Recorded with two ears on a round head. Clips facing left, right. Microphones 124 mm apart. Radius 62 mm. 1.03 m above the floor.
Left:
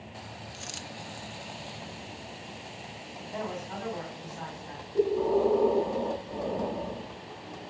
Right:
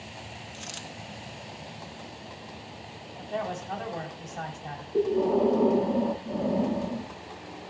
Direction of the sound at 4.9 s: 45° right (ahead or behind).